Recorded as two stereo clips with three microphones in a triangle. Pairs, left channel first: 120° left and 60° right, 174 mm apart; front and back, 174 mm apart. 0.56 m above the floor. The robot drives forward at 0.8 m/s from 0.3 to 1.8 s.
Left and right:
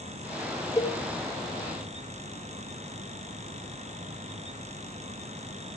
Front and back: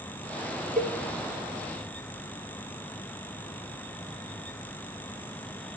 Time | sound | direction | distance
0.8 | a cowbell | 175° right | 0.6 m